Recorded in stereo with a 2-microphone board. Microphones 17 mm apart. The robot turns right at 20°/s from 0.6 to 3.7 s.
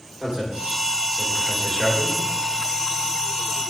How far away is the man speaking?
About 3 m.